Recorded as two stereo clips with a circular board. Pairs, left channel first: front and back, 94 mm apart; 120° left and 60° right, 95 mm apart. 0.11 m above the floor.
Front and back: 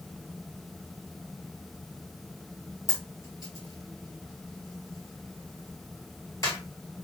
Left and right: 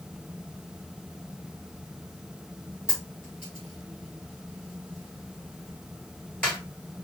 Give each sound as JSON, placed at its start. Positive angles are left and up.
{"t": 2.9, "sound": "a dropped coin", "azimuth_deg": 40, "distance_m": 1.2}